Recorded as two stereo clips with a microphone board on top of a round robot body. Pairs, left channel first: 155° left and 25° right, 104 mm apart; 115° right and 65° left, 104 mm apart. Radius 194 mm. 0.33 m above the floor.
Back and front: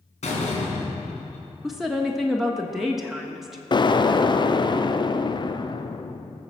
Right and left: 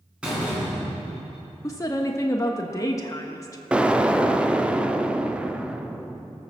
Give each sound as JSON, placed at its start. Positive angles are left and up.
{"t": 0.2, "sound": "a door slam", "azimuth_deg": 150, "distance_m": 3.5}
{"t": 1.6, "sound": "a woman speaking", "azimuth_deg": -110, "distance_m": 1.4}
{"t": 3.7, "sound": "an explosion", "azimuth_deg": 145, "distance_m": 0.9}